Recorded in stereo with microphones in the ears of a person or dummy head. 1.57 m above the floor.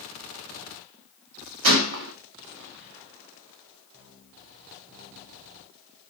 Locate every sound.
1.6 s a gunshot: 70° right (ahead or behind), 0.6 m